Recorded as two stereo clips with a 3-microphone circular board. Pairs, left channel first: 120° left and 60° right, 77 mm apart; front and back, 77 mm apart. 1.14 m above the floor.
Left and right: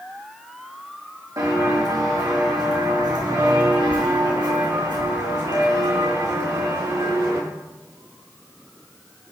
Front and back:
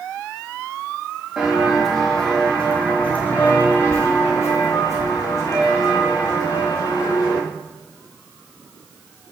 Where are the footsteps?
95° right, 4 m; by 7.4 s 25° right, 6 m.